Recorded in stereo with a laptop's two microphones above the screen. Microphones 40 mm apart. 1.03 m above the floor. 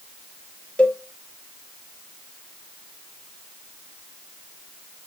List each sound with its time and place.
0.8 s a cowbell: 30° left (ahead or behind), 0.8 m